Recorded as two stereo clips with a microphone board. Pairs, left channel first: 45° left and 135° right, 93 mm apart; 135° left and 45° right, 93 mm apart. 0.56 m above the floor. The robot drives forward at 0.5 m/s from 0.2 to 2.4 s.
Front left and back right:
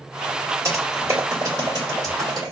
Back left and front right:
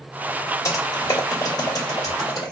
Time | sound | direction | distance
0.7 | typing on a keyboard | straight behind | 1.5 m